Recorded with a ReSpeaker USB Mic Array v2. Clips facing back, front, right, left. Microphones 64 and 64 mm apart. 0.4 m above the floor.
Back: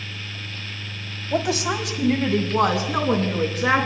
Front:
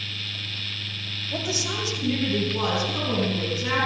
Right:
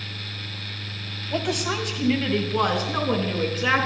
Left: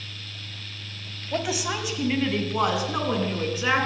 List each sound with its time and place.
1.3 s a woman speaking: 175° left, 2 m